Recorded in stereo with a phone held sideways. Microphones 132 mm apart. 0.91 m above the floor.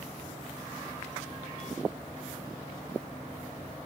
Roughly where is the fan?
Right.